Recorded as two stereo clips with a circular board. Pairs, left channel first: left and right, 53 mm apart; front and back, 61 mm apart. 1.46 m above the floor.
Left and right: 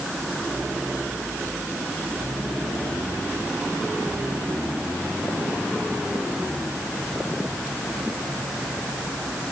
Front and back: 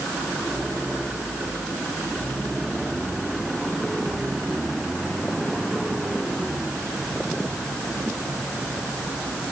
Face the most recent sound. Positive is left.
No sound to turn to.